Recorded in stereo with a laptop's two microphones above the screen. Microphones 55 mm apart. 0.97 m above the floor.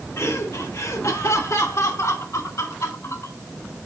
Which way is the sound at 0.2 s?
60° left (ahead or behind).